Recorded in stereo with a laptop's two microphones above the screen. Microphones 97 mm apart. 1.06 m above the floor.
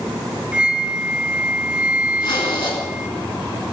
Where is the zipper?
60° left (ahead or behind), 4 m.